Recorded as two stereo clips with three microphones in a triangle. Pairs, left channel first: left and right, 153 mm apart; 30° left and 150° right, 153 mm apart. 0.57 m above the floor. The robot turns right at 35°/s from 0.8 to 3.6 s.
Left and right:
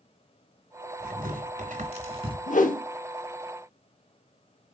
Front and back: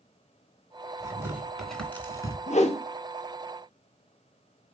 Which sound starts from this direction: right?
Tearing paper, at 1.0 s.